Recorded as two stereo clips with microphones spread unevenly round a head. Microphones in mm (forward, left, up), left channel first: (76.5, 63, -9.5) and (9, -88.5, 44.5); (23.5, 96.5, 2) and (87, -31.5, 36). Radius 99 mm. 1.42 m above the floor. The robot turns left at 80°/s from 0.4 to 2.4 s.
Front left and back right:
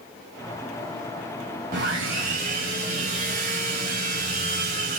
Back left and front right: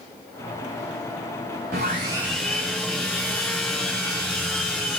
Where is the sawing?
100° right, 4.5 m; by 5.0 s 155° right, 4.5 m.